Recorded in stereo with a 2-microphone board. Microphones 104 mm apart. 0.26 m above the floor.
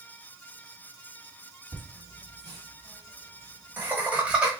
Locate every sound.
1.7 s laughter: 30° right (ahead or behind), 1.6 m; by 4.5 s 10° right (ahead or behind), 1.3 m